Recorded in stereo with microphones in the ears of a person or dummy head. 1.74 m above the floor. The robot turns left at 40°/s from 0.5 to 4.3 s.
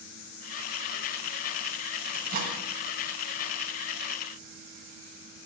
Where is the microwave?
60° right (ahead or behind), 2.5 m; by 2.6 s 40° right (ahead or behind), 2.5 m.